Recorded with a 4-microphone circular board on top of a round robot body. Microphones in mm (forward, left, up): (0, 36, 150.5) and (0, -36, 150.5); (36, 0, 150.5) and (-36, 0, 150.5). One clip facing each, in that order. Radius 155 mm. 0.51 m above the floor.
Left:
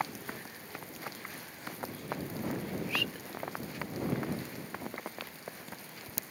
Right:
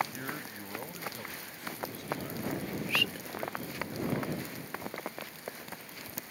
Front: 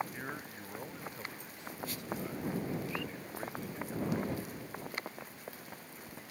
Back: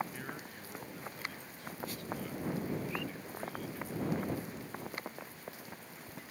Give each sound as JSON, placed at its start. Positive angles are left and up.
{"t": 0.1, "sound": "a man speaking", "azimuth_deg": -65}